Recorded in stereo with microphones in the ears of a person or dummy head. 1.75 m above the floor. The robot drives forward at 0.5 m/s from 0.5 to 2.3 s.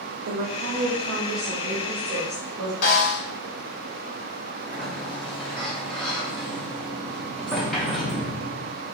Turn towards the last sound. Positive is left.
turn(degrees=5)  # may be behind; listen again after turning